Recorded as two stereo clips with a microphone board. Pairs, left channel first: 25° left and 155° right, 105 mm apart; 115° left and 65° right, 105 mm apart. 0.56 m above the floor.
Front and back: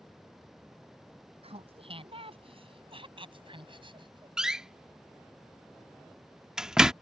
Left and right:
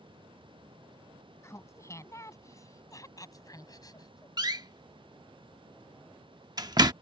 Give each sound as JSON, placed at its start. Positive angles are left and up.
{"t": 1.4, "sound": "laughter", "azimuth_deg": 175}
{"t": 4.4, "sound": "a door slam", "azimuth_deg": -75}